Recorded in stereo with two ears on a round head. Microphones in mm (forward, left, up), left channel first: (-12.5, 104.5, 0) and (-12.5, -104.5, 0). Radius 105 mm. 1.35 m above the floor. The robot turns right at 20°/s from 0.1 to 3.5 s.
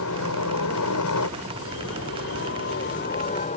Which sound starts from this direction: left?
A helicopter, at 0.0 s.